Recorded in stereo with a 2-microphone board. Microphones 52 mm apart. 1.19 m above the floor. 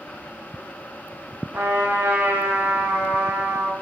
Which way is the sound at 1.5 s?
55° right (ahead or behind).